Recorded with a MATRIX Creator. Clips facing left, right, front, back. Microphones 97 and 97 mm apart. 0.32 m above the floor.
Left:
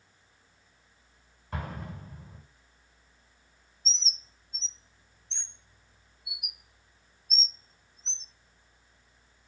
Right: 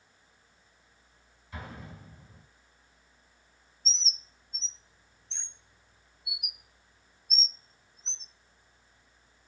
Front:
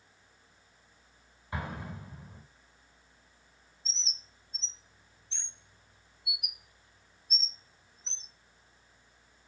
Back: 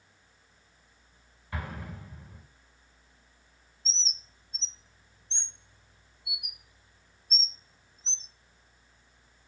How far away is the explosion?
About 3.5 m.